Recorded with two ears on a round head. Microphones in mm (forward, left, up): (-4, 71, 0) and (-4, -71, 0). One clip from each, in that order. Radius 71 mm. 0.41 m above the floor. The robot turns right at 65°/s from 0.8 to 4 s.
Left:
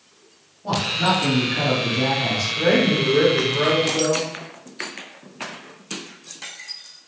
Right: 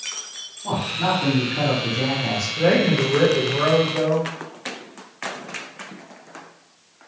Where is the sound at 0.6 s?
20° right (ahead or behind), 1.3 m; by 2.5 s 15° left (ahead or behind), 1.3 m.